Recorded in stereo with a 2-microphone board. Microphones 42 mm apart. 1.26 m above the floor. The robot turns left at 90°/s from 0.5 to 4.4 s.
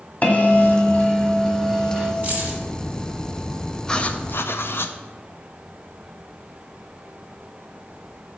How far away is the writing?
About 0.5 m.